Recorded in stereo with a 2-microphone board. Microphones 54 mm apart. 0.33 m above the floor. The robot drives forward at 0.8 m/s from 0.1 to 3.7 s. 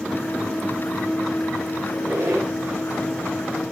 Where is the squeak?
45° right (ahead or behind), 9 m.